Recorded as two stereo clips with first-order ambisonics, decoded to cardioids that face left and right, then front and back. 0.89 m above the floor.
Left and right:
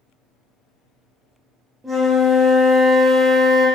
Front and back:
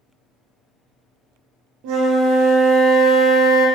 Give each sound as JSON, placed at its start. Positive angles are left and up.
{"t": 1.8, "sound": "a flute", "azimuth_deg": -175, "distance_m": 0.9}